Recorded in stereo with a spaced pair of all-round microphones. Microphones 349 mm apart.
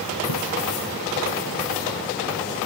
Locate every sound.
0.3 s a splash: 80° left